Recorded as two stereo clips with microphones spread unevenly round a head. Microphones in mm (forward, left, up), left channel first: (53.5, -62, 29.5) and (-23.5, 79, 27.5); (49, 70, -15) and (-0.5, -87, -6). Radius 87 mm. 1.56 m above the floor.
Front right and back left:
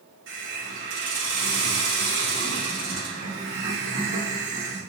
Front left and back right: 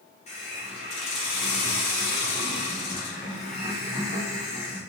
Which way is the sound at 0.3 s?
130° left.